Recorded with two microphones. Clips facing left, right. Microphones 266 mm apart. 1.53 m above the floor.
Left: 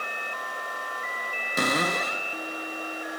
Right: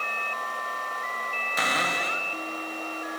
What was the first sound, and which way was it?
A cupboard door, 50° left (ahead or behind).